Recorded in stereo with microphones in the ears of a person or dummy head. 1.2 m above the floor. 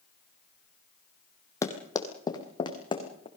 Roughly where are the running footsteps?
Left.